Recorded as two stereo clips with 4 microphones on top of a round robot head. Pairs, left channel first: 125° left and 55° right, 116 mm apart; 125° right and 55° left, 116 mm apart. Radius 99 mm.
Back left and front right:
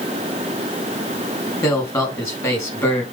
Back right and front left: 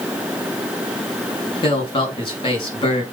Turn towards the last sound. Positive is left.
turn(degrees=-170)